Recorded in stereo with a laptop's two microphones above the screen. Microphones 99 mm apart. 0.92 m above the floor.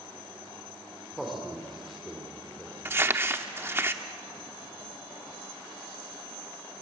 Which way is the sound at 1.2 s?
Centre (ahead or behind).